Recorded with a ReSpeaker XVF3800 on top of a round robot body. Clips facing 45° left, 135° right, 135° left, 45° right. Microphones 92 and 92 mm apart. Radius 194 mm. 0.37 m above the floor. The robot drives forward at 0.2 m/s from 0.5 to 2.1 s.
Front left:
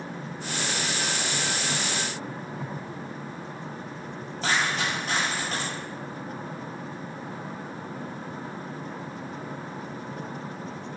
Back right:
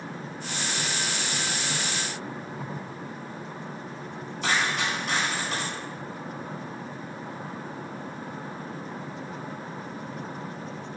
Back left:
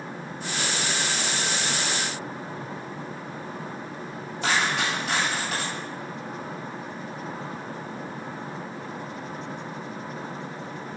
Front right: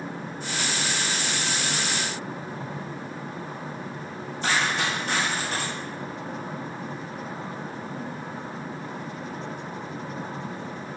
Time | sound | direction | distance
4.4 | a dropped coin | 105° left | 1.8 m